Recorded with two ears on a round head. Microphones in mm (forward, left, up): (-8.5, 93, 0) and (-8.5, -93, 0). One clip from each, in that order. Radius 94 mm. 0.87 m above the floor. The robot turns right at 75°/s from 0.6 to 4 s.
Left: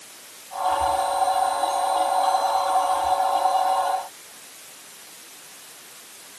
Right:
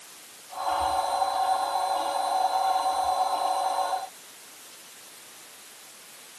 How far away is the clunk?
I don't hear a clunk.